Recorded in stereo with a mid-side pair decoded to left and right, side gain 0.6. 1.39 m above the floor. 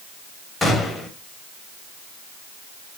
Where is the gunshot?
15° left, 1.5 m.